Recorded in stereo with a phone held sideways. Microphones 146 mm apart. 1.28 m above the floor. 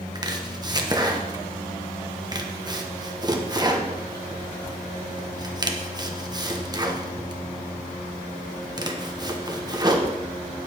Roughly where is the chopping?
Right.